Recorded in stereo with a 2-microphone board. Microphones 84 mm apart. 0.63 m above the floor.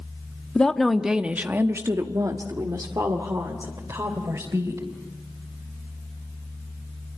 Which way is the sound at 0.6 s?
10° left (ahead or behind).